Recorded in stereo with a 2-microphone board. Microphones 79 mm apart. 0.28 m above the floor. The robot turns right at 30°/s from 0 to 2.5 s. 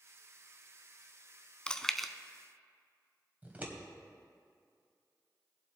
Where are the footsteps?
No footsteps in this recording.